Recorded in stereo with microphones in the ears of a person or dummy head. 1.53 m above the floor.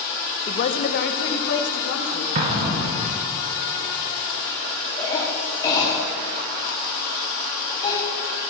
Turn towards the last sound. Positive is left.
turn(degrees=20)  # may be behind; listen again after turning